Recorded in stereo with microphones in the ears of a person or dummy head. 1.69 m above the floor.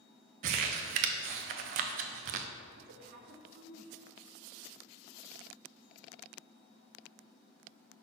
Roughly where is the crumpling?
Right.